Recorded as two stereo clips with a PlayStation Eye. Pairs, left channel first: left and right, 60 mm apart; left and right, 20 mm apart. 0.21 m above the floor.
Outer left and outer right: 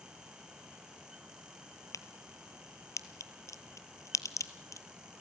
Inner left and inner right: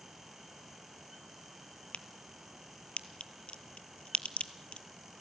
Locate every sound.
1.9 s a crack: 70° left (ahead or behind), 1.1 m